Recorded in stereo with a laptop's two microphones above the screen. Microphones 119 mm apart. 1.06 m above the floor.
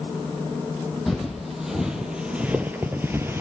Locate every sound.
1.1 s footsteps: centre (ahead or behind), 1.9 m; by 3.4 s 20° right (ahead or behind), 1.1 m